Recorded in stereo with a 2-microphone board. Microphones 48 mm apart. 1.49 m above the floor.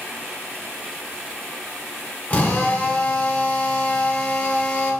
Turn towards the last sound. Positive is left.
turn(degrees=35)  # may be behind; listen again after turning